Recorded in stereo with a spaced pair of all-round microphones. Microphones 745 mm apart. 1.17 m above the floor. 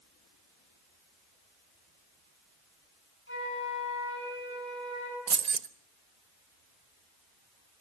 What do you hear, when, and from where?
3.3 s a flute: 15° left (ahead or behind), 7 m
5.3 s keys jangling: 65° right (ahead or behind), 0.9 m